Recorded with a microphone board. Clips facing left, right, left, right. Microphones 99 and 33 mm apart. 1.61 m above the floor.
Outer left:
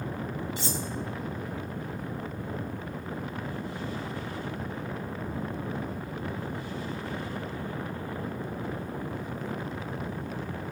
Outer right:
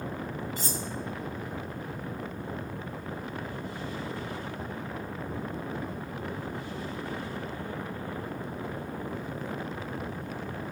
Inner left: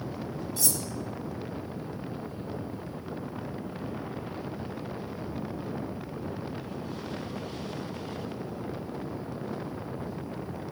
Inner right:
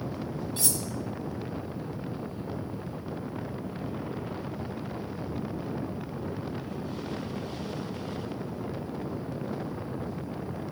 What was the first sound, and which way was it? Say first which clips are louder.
Cutlery clinking: outer left 2 dB, inner left 1 dB; 45° right (ahead or behind).